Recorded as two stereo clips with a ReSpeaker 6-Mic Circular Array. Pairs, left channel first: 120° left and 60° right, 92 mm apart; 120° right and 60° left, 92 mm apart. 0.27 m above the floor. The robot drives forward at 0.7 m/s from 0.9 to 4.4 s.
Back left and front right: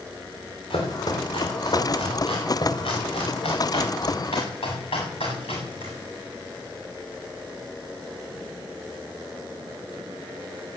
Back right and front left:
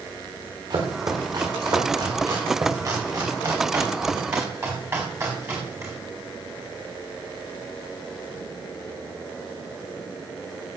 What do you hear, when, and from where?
0.7 s chopping: 100° left, 5 m; by 5.9 s 125° left, 6 m